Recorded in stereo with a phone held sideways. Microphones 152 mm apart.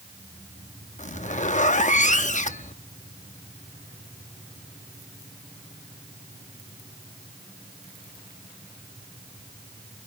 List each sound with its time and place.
1.0 s a zipper: 50° left (ahead or behind), 0.7 m